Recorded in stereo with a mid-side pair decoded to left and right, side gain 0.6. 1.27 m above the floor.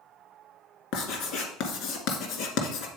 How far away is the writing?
About 1.9 m.